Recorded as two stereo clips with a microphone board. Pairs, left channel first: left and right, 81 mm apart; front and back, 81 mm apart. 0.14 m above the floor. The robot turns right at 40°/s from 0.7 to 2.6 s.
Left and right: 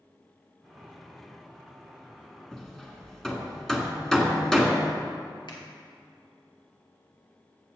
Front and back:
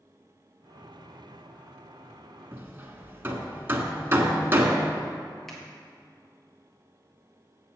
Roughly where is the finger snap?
Left.